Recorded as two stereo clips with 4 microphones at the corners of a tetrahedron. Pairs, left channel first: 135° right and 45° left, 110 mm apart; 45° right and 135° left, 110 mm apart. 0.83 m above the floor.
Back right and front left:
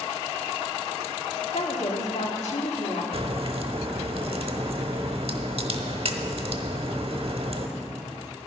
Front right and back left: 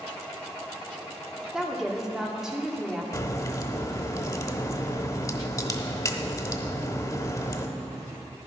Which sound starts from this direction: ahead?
A crack, at 3.1 s.